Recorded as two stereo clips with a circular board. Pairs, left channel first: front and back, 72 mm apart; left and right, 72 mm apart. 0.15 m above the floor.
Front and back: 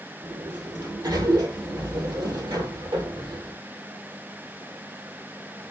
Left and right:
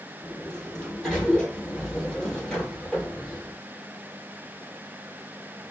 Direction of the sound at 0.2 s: 170° left.